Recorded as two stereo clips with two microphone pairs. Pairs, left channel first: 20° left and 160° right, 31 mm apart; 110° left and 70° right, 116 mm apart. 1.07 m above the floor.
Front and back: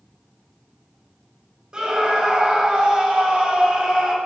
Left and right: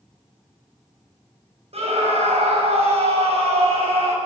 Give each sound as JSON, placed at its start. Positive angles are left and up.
{"t": 1.7, "sound": "a scream", "azimuth_deg": -95, "distance_m": 6.0}